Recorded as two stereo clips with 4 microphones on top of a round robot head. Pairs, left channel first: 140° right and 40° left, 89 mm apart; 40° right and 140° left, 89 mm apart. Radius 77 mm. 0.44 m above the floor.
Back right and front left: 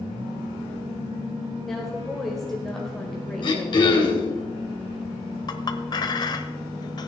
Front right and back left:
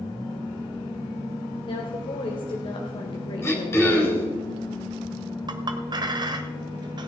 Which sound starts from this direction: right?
Throat clearing, at 3.4 s.